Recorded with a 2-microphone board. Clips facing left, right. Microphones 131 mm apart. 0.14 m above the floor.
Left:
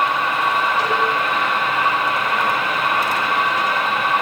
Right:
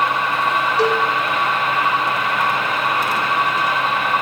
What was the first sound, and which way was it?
A cowbell, 75° right (ahead or behind).